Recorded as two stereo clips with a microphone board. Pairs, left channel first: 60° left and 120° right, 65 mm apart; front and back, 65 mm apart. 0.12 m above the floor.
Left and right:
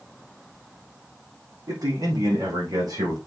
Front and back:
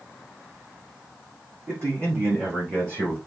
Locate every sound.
1.7 s a man speaking: 140° right, 5.5 m; by 3.2 s 120° right, 6 m